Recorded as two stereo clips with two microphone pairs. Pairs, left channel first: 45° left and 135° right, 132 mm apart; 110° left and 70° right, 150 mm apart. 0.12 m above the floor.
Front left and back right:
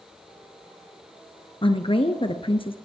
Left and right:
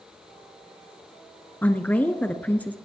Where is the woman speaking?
35° left, 1.5 m.